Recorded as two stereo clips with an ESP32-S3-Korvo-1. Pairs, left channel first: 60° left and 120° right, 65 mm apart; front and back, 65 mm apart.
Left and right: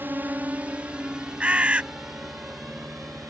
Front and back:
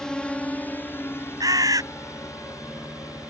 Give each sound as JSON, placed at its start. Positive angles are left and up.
{"t": 0.0, "sound": "a drone", "azimuth_deg": -75}
{"t": 1.4, "sound": "a bird", "azimuth_deg": 170}